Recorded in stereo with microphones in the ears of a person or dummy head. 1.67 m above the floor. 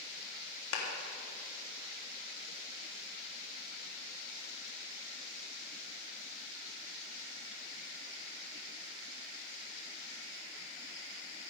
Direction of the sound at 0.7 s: 80° left.